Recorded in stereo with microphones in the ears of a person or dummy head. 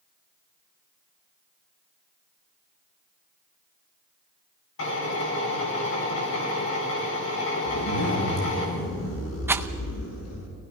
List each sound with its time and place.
4.8 s a drill: 75° left (ahead or behind), 7.5 m
7.7 s a zipper: 85° left, 7 m
9.5 s a rattle: 15° right (ahead or behind), 0.7 m